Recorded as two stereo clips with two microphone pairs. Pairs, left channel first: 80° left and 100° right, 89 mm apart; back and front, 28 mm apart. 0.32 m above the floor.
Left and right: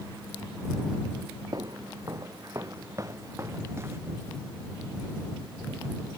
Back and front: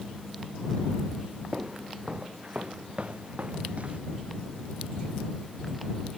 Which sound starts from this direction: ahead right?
Footsteps, at 1.5 s.